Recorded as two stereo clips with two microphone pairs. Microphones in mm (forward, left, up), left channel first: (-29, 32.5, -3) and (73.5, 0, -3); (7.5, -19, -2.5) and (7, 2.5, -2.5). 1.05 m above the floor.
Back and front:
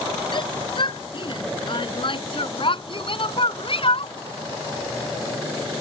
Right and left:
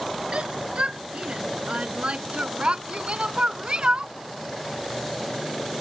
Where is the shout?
120° left; by 4.2 s 130° left.